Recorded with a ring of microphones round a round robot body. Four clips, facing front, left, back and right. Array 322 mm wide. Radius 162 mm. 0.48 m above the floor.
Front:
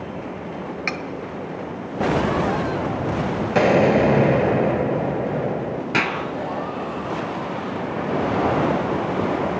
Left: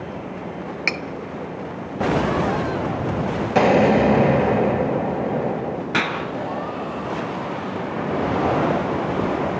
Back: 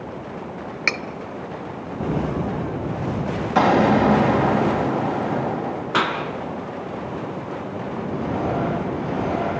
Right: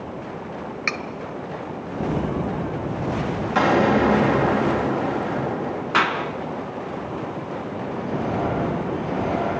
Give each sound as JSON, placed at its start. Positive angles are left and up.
{"t": 0.9, "sound": "cutlery clinking", "azimuth_deg": 130, "distance_m": 1.0}
{"t": 3.5, "sound": "an explosion", "azimuth_deg": 45, "distance_m": 2.5}
{"t": 5.9, "sound": "a clap", "azimuth_deg": 40, "distance_m": 3.5}